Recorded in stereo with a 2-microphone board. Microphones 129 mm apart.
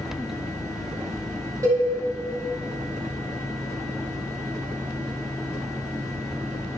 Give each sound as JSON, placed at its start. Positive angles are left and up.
{"t": 1.6, "sound": "a cowbell", "side_deg": -20, "distance_m": 2.0}